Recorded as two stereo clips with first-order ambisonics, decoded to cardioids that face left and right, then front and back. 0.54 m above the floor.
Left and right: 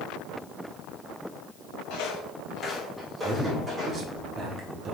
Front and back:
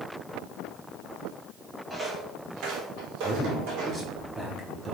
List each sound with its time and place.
1.9 s footsteps: 90° left, 1.0 m; by 4.0 s 160° right, 2.5 m
3.2 s a man speaking: 110° right, 0.6 m